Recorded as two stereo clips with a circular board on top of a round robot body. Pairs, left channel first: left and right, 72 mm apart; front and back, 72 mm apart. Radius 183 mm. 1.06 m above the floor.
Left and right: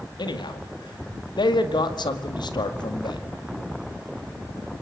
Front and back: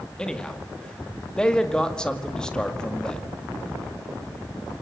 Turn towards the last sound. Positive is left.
turn(degrees=80)